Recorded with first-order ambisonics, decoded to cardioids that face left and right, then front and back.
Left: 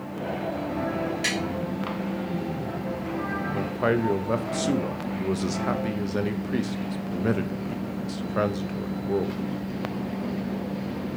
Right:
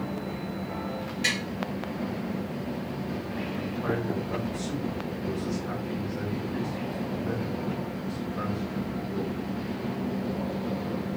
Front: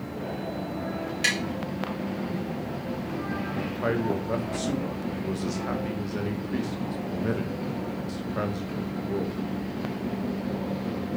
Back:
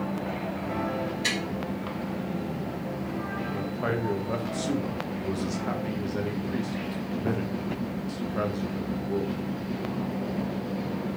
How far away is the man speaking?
About 0.5 m.